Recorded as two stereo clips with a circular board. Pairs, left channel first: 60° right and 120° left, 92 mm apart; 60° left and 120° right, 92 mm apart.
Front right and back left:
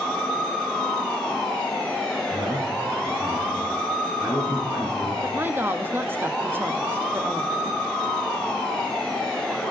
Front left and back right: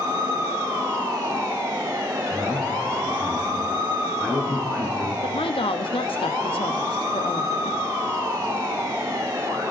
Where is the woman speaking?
55° left, 1.1 m.